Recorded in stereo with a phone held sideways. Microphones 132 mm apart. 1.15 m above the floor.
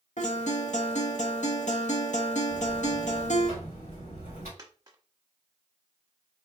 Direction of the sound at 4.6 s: 30° right (ahead or behind).